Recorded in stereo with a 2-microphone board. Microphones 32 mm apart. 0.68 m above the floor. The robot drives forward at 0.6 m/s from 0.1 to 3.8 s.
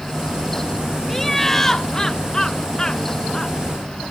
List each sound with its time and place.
1.1 s laughter: 10° left (ahead or behind); by 3.5 s 25° left (ahead or behind)